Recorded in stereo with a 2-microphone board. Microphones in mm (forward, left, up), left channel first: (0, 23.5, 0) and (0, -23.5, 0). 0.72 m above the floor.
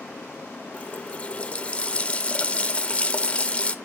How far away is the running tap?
About 0.8 m.